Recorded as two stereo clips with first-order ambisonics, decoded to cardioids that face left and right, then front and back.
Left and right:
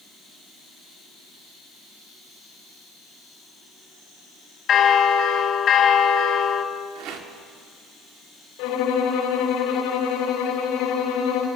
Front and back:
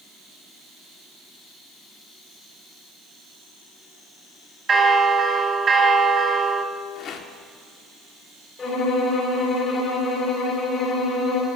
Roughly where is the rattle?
Ahead right.